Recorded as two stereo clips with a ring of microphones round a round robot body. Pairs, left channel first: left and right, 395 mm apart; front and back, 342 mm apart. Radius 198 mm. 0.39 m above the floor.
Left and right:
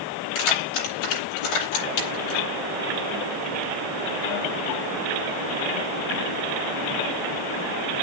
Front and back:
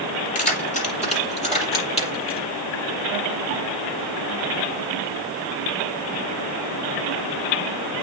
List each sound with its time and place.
0.3 s keys jangling: 70° left, 7.5 m; by 2.5 s 75° left, 6.5 m